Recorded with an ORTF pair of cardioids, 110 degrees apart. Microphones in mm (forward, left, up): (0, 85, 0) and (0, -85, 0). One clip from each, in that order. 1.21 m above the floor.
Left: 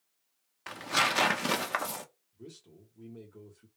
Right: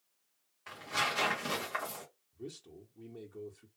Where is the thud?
I don't hear a thud.